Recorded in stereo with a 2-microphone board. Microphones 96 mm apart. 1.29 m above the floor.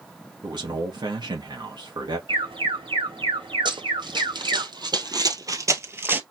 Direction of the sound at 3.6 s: 55° right (ahead or behind).